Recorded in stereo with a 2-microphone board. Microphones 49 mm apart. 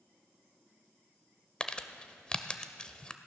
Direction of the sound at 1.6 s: 20° left (ahead or behind).